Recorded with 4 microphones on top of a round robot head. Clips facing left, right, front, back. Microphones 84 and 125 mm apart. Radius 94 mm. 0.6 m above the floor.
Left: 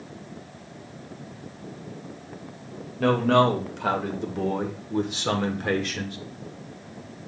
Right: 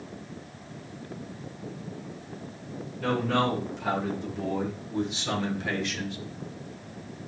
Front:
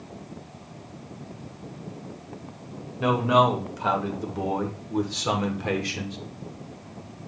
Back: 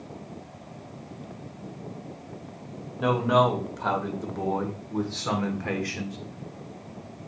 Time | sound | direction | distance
3.0 | a man speaking | 90° left | 3 m